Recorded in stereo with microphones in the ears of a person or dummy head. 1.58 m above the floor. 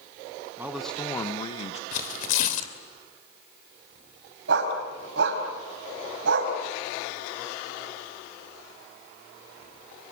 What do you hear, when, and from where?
0.6 s a man speaking: 10° right (ahead or behind), 1.2 m; by 1.8 s 45° left (ahead or behind), 1.9 m
1.9 s tearing paper: 45° left (ahead or behind), 2.5 m
4.5 s a dog barking: 75° right (ahead or behind), 5 m